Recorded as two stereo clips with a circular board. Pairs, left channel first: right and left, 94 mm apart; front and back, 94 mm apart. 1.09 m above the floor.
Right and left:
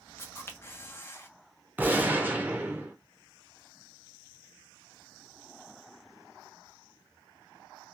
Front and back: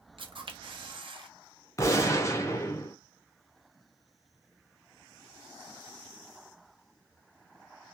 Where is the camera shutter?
155° right, 0.6 m.